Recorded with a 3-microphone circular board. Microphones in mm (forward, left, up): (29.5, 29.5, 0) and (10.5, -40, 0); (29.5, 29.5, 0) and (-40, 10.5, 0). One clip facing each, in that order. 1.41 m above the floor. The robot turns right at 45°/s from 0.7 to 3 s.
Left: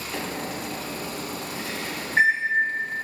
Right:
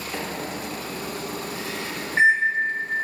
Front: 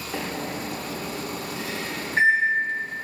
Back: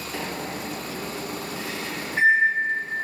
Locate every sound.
0.1 s a microwave: 30° right, 0.9 m; by 3.0 s 75° left, 0.9 m